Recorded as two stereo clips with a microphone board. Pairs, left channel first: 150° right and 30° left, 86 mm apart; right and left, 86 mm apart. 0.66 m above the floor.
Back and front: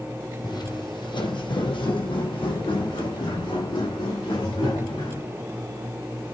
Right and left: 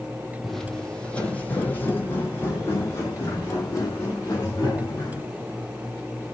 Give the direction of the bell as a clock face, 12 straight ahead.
I don't hear a bell.